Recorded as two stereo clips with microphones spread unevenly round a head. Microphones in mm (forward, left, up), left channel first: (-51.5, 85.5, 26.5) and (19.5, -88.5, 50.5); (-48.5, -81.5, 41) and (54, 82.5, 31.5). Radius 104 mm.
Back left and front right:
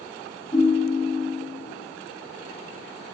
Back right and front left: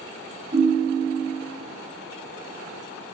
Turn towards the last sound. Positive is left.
turn(degrees=40)